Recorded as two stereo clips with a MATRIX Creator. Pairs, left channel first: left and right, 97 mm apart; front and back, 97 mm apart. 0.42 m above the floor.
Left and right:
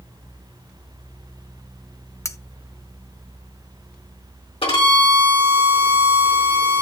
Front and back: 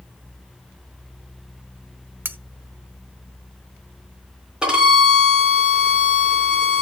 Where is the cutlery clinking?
125° left, 0.6 m.